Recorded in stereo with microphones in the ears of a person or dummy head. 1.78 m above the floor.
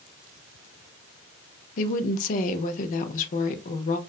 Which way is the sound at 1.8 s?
45° left (ahead or behind).